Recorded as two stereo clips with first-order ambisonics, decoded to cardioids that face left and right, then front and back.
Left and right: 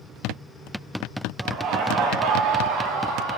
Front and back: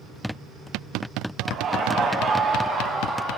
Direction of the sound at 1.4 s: 135° right.